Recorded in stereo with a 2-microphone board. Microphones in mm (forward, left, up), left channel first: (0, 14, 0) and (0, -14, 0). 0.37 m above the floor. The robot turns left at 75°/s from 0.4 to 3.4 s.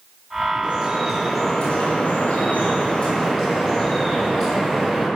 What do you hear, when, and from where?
0.6 s dripping: 130° right, 7.5 m; by 5.1 s 25° left, 7.5 m